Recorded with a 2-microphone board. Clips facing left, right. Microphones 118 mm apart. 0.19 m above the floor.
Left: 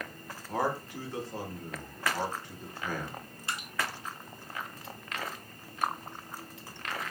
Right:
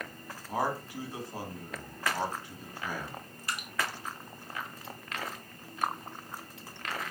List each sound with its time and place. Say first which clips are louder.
0.5 s a man speaking: left 1 dB; 10° right (ahead or behind), 1.1 m
3.5 s dripping: even; 25° left (ahead or behind), 0.8 m